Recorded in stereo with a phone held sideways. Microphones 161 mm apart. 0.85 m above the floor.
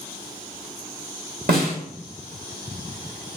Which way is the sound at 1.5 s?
80° right.